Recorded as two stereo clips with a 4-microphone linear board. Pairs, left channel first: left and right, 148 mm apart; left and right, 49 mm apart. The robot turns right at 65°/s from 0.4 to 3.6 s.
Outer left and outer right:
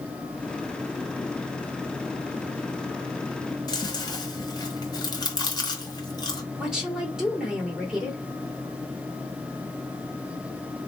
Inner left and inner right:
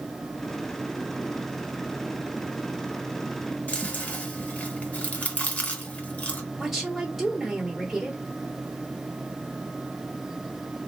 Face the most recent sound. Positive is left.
turn(degrees=-5)  # may be behind; listen again after turning